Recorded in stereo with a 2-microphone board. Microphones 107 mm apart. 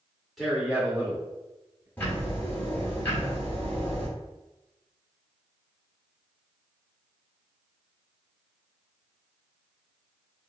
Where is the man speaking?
Centre (ahead or behind), 1.3 m; by 1.9 s 35° right (ahead or behind), 1.6 m.